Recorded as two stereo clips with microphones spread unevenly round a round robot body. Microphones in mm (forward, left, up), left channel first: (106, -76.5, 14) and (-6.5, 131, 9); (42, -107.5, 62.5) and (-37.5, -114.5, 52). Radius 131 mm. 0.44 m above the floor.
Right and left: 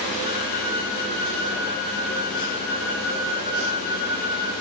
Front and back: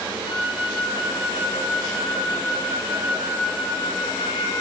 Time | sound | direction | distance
0.2 | a flute | 10° right | 4.5 m